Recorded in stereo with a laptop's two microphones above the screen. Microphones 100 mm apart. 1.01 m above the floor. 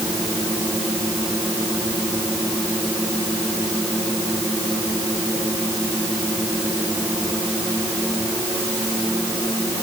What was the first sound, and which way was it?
Only background noise.